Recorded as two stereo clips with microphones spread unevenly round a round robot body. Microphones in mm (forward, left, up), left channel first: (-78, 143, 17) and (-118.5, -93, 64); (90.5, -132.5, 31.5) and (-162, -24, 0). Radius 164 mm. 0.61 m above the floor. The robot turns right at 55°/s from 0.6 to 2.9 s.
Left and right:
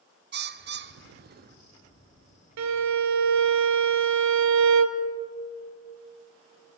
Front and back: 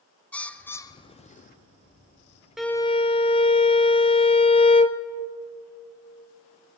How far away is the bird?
About 0.5 m.